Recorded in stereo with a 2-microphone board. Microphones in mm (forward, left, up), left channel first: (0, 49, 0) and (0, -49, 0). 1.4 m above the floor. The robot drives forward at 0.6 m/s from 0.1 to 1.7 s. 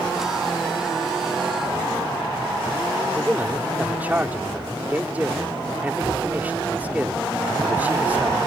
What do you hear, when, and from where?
3.1 s a man speaking: 15° right (ahead or behind)